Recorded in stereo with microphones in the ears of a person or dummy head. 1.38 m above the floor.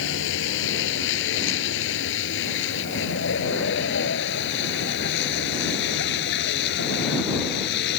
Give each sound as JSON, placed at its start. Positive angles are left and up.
{"t": 0.0, "sound": "a vehicle", "side_deg": 70}